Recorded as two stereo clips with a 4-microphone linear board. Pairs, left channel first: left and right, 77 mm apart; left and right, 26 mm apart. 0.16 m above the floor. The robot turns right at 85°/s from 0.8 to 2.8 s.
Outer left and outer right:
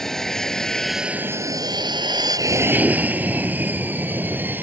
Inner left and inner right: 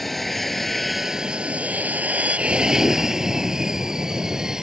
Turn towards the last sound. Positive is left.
turn(degrees=-25)  # may be behind; listen again after turning